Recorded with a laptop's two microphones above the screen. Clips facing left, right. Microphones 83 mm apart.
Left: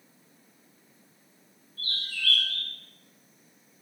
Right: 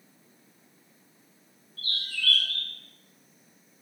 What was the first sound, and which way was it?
A bird, 25° left (ahead or behind).